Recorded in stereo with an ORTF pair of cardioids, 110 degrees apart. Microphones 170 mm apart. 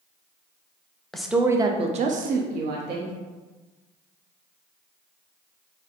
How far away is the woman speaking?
About 0.6 m.